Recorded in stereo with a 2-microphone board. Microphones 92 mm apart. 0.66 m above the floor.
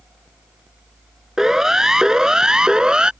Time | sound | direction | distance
1.4 | a siren | 5° right (ahead or behind) | ?